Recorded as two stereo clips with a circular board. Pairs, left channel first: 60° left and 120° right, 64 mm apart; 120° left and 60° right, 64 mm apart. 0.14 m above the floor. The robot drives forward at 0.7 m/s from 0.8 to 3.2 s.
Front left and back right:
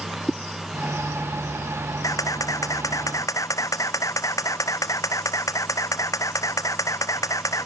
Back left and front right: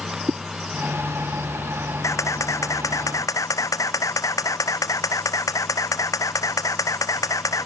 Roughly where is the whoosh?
Ahead right.